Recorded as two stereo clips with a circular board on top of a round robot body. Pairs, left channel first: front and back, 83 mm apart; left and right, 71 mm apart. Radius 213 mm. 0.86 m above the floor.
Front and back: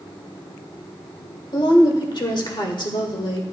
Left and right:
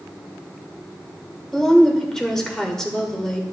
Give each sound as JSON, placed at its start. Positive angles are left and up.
{"t": 1.5, "sound": "a woman speaking", "azimuth_deg": 10, "distance_m": 1.8}